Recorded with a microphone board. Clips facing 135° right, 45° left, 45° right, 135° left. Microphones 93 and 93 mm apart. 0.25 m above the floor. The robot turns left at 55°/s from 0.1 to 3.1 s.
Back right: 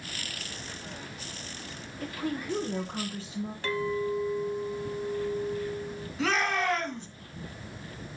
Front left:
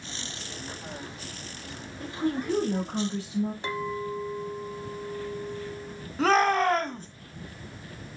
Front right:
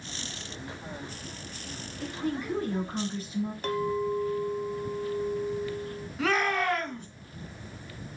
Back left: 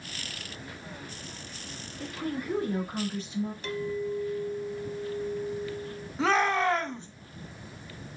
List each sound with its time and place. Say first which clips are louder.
2.0 s a woman speaking: front left 4 dB, front right 2 dB; 105° left, 4 m; by 3.5 s 45° left, 4 m
3.6 s a clink: back right 2 dB, front right 3 dB; 20° right, 0.8 m
6.2 s a shout: front left 6 dB, back left 2 dB; 80° left, 1.9 m